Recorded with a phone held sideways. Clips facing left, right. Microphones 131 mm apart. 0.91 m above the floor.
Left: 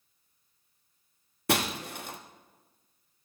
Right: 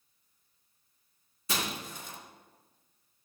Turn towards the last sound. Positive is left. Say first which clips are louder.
# left 7 dB
turn(degrees=65)  # may be behind; listen again after turning